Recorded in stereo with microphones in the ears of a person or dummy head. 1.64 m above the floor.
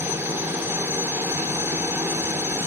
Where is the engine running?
15° right (ahead or behind).